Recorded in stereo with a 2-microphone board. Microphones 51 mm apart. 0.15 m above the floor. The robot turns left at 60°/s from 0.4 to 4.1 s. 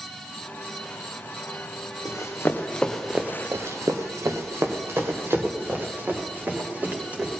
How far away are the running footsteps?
About 1.8 m.